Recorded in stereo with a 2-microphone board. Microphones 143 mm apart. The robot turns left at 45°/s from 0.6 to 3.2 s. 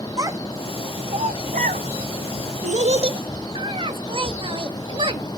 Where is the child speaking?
25° right (ahead or behind), 0.9 m; by 5.4 s 35° right (ahead or behind), 0.9 m.